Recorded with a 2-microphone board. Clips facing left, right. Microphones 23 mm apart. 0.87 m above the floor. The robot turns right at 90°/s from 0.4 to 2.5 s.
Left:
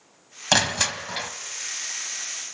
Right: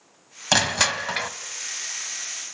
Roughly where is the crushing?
Behind.